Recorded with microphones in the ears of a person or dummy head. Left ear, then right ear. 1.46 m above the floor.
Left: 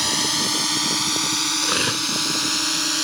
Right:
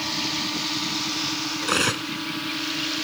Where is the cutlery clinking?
5° right (ahead or behind).